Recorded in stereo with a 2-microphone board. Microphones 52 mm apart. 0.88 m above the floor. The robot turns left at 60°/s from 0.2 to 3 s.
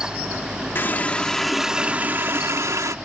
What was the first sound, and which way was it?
A running tap, 45° left.